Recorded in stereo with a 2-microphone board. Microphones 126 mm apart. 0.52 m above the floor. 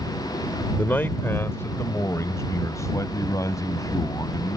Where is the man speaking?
15° left (ahead or behind); by 4.6 s 30° left (ahead or behind).